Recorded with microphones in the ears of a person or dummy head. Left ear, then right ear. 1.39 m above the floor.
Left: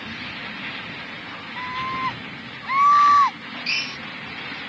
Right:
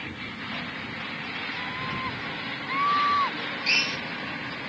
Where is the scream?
40° left (ahead or behind).